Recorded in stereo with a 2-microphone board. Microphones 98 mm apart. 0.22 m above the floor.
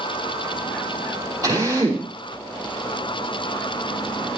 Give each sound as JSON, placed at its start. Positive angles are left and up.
{"t": 1.4, "sound": "a drill", "side_deg": -40, "distance_m": 6.0}